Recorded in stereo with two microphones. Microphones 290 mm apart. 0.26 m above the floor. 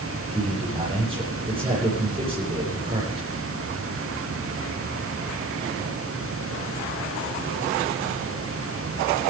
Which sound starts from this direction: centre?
A man speaking, at 0.3 s.